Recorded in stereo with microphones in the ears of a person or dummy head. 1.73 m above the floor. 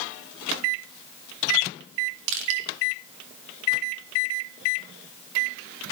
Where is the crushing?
75° right (ahead or behind), 2 m.